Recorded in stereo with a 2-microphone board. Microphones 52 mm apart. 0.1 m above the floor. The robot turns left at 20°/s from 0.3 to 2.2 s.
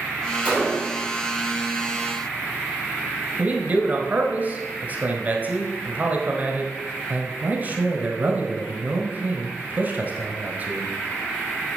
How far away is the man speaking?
About 1.2 m.